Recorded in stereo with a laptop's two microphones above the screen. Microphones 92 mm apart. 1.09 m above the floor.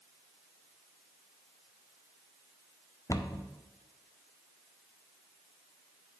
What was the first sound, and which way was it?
A cupboard door, 35° left (ahead or behind).